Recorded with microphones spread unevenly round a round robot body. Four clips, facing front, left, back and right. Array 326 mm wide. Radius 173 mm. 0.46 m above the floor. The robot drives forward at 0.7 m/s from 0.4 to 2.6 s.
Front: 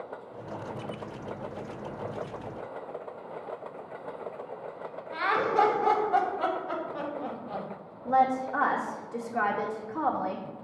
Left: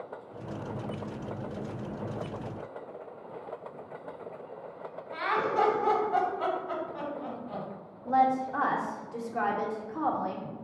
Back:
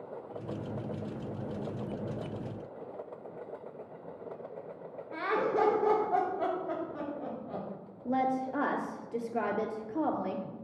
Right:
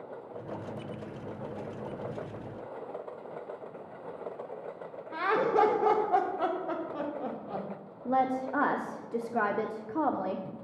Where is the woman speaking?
115° right, 0.8 m.